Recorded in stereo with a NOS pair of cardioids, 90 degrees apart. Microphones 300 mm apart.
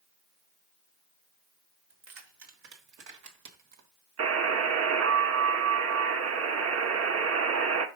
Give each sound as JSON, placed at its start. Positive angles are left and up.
{"t": 1.9, "sound": "keys jangling", "azimuth_deg": -60, "distance_m": 4.0}
{"t": 4.2, "sound": "a buzzer", "azimuth_deg": -55, "distance_m": 1.7}